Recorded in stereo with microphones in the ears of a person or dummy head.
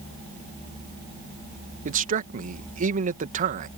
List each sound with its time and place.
1.9 s a man speaking: 40° right (ahead or behind)